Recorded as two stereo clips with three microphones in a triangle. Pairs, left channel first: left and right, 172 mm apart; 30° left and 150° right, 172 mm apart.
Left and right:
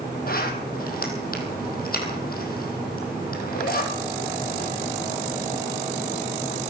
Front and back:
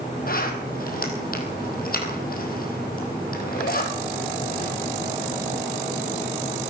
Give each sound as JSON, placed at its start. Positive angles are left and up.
{"t": 0.3, "sound": "a zipper", "azimuth_deg": 60, "distance_m": 2.5}